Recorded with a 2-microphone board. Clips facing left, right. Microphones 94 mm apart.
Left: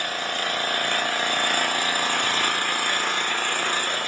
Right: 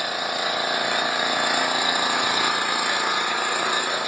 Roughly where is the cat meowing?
I don't hear a cat meowing.